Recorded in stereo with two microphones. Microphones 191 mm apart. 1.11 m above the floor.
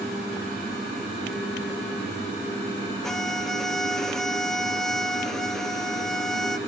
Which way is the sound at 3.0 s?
Centre (ahead or behind).